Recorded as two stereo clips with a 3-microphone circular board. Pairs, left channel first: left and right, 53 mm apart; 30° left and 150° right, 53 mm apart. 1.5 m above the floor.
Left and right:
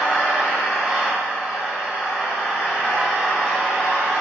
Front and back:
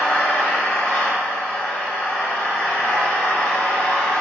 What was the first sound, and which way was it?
An engine running, 20° right.